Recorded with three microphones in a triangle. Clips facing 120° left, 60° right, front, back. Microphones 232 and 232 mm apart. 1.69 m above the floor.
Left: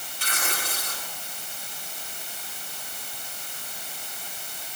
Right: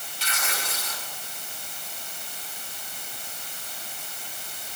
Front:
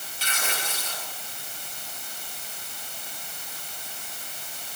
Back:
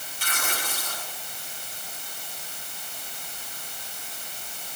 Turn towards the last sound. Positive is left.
turn(degrees=150)